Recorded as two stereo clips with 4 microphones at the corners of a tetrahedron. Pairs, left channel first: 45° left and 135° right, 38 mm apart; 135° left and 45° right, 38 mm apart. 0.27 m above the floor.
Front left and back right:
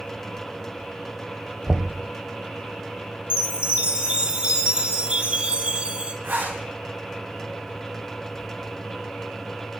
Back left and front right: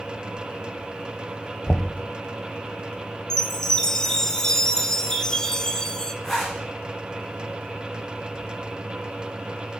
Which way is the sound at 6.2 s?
145° right.